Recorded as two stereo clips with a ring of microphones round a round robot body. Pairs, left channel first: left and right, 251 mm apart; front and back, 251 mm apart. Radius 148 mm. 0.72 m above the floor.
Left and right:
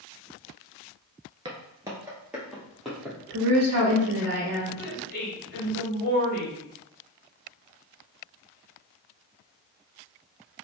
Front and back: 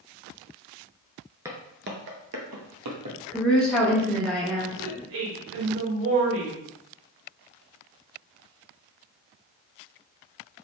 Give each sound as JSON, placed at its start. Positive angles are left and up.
{"t": 1.4, "sound": "footsteps", "azimuth_deg": -120, "distance_m": 0.7}
{"t": 3.3, "sound": "a woman speaking", "azimuth_deg": -85, "distance_m": 2.5}
{"t": 4.8, "sound": "a woman speaking", "azimuth_deg": 145, "distance_m": 1.4}